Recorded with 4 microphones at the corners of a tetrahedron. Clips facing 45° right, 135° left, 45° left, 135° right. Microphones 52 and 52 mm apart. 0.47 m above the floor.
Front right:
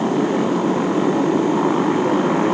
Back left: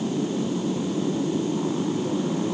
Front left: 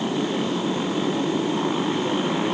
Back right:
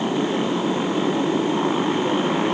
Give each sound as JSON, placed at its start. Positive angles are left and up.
{"t": 0.0, "sound": "a motorcycle", "azimuth_deg": -55}